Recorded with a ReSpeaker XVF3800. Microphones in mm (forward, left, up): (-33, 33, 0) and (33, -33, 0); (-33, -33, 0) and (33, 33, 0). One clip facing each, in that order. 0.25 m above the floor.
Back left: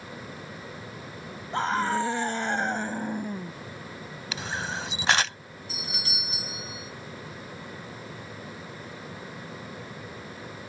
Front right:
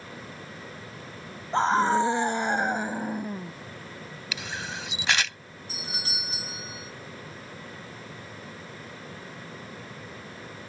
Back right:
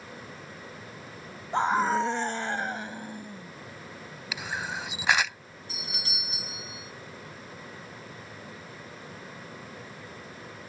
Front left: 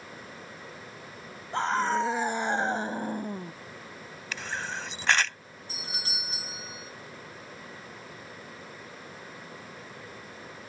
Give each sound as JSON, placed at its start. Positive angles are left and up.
{"t": 1.5, "sound": "a scream", "azimuth_deg": -85}
{"t": 4.3, "sound": "a camera shutter", "azimuth_deg": 150}
{"t": 5.7, "sound": "a doorbell", "azimuth_deg": 0}